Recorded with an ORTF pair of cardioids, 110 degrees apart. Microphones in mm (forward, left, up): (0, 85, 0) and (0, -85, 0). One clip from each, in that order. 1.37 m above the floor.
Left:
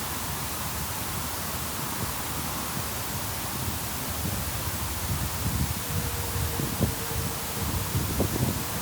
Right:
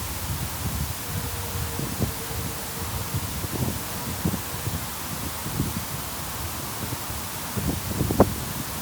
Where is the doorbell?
No doorbell in this recording.